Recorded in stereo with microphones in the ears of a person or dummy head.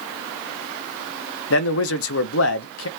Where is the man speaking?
75° left (ahead or behind), 0.5 m.